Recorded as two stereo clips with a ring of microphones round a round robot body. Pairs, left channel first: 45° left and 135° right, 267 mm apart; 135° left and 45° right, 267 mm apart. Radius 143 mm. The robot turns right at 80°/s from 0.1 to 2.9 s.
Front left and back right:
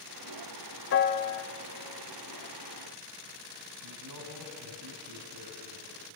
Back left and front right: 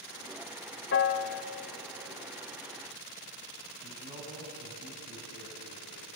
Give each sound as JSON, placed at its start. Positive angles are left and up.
{"t": 0.9, "sound": "a piano", "azimuth_deg": 90, "distance_m": 1.1}
{"t": 3.8, "sound": "a man speaking", "azimuth_deg": -115, "distance_m": 4.5}